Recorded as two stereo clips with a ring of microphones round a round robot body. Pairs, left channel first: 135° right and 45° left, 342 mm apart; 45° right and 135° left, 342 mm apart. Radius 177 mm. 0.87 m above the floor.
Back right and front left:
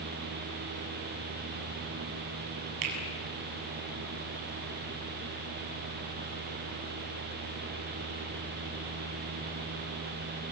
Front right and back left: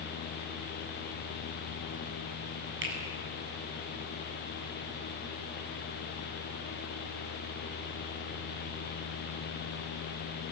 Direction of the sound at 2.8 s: 75° left.